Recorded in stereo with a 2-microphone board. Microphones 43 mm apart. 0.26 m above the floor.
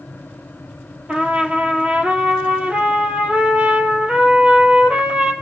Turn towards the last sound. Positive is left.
turn(degrees=-25)  # may be behind; listen again after turning